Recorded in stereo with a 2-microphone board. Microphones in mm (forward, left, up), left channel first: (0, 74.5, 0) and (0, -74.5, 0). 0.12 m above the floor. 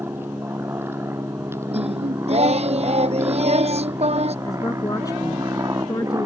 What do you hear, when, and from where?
0.0 s an aircraft: 15° right (ahead or behind); by 6.3 s 25° right (ahead or behind)
1.7 s singing: 50° right (ahead or behind)
4.5 s a woman speaking: 25° left (ahead or behind)